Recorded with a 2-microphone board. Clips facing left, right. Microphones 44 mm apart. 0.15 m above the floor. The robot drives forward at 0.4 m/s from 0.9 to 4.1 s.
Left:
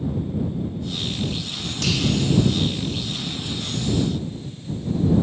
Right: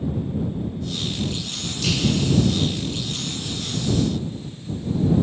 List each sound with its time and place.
1.8 s a finger snap: 80° left, 5 m